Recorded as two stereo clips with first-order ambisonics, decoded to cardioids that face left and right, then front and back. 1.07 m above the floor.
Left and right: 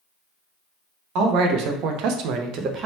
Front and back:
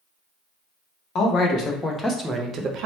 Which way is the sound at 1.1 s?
55° right.